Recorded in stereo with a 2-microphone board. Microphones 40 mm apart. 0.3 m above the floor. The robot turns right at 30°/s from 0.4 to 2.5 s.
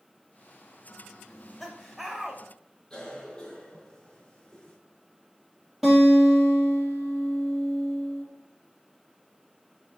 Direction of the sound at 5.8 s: 5° right (ahead or behind).